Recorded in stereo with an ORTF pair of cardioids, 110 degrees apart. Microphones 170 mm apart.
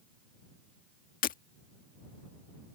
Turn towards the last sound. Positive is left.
turn(degrees=60)